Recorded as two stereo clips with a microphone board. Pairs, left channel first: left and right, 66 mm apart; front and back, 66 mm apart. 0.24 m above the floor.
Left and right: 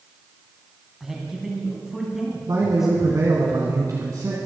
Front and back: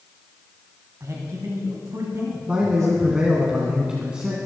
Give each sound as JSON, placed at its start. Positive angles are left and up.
{"t": 1.0, "sound": "a man speaking", "azimuth_deg": -175, "distance_m": 2.0}
{"t": 2.5, "sound": "a man speaking", "azimuth_deg": -105, "distance_m": 2.0}